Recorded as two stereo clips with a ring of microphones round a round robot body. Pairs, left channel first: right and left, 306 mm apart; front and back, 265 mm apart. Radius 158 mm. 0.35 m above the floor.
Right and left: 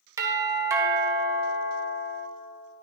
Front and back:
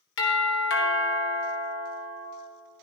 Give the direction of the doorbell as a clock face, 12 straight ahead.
12 o'clock.